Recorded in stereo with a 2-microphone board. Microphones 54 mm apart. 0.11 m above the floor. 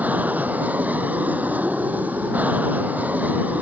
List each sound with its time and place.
0.0 s an aircraft: 30° right (ahead or behind)